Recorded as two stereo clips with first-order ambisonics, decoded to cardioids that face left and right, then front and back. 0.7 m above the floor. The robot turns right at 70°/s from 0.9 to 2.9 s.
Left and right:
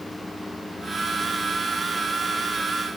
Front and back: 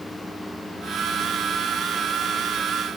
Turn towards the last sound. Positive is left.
No sound to turn to.